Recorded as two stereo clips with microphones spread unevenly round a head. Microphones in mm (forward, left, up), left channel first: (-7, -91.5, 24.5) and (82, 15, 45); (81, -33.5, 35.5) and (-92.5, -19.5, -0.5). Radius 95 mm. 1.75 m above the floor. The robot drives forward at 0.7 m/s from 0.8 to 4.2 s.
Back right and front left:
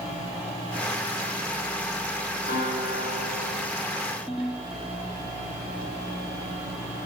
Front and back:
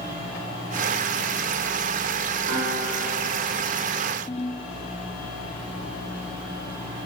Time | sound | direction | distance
2.5 | a guitar | 170° right | 8 m
4.3 | a ringtone | 30° right | 1.6 m